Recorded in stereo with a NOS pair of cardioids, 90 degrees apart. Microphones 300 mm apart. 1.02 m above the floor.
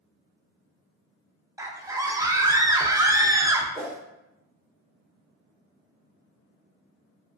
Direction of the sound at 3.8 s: 10° right.